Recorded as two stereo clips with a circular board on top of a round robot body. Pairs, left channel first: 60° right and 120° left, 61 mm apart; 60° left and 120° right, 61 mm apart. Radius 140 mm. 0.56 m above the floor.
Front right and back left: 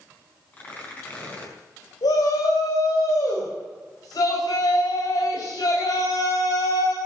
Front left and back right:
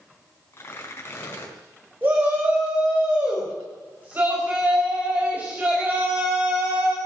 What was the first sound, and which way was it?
Tearing paper, 5° left.